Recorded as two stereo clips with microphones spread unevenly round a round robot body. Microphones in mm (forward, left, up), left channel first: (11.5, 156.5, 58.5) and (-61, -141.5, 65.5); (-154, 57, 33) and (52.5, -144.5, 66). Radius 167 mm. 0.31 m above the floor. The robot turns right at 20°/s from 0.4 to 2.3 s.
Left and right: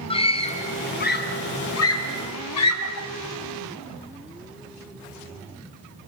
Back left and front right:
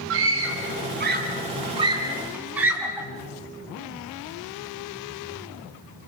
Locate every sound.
0.1 s a scream: 5° left, 3 m; by 3.1 s 45° left, 3 m